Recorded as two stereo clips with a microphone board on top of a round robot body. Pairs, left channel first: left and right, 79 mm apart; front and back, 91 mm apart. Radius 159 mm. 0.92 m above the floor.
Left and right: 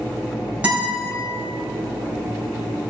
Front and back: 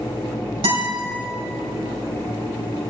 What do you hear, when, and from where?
0.6 s a guitar: 170° right, 5 m